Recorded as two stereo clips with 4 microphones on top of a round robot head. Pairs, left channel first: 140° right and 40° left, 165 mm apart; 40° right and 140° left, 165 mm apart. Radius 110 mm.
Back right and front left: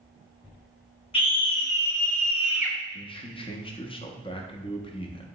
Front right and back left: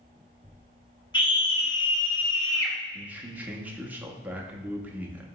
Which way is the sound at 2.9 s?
150° right.